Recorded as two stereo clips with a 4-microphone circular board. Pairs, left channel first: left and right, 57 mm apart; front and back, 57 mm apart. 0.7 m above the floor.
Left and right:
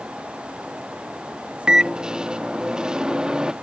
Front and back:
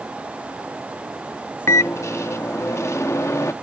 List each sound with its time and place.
1.7 s a microwave: 15° right